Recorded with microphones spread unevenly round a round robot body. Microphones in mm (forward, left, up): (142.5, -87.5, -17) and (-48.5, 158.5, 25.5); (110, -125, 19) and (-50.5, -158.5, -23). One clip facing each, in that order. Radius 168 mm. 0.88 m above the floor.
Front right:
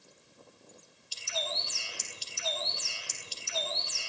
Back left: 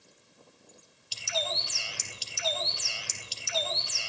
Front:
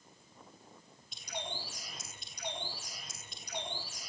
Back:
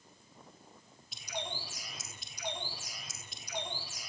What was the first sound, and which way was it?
A bird, 105° left.